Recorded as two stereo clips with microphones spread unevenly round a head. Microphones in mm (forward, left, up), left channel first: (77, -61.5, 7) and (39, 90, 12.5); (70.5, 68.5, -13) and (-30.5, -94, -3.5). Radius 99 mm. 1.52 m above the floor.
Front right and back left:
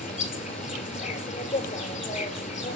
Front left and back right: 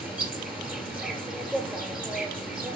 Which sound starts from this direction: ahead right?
An insect, at 0.0 s.